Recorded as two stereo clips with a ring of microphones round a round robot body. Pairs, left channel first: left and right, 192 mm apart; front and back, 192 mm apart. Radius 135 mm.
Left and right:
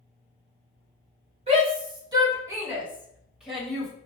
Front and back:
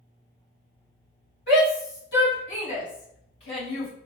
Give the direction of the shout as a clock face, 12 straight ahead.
1 o'clock.